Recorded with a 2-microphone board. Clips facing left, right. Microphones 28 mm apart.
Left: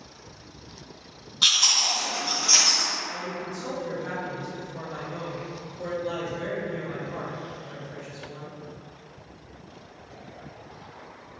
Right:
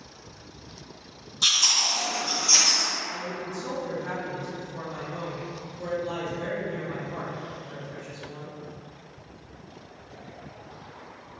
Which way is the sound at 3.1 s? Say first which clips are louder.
Even; 15° left (ahead or behind).